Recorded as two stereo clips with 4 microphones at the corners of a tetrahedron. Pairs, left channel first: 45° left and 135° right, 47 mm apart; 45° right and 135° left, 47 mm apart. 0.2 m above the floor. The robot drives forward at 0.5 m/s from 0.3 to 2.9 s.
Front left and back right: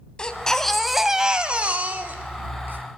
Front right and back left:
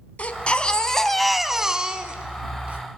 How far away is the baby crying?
About 0.7 m.